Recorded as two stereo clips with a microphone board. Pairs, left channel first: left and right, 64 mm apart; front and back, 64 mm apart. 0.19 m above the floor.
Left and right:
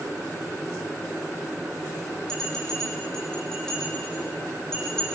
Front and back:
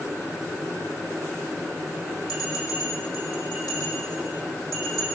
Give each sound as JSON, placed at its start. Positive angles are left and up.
{"t": 2.3, "sound": "a bell", "azimuth_deg": 10, "distance_m": 9.5}